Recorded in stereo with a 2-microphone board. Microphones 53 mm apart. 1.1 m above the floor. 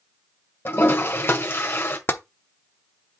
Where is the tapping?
40° left (ahead or behind), 0.7 m.